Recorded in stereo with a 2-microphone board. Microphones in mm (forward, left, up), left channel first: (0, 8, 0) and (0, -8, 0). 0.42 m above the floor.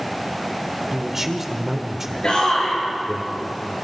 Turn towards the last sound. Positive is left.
turn(degrees=55)  # may be behind; listen again after turning